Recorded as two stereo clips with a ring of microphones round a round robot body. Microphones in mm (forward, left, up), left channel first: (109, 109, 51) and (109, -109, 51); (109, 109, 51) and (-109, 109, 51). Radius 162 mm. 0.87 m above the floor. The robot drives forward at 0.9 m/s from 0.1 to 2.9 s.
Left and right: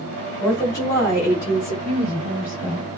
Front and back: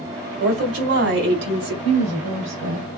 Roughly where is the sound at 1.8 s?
Behind.